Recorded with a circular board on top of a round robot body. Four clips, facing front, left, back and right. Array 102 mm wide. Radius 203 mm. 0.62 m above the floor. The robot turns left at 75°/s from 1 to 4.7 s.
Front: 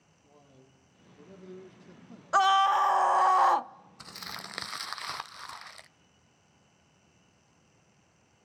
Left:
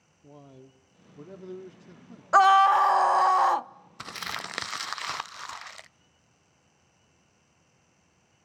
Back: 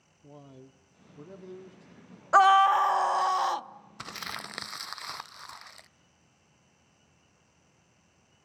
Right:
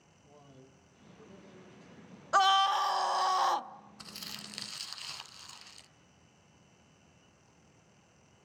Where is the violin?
I don't hear a violin.